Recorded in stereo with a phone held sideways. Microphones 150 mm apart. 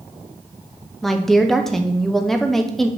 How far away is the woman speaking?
About 0.9 m.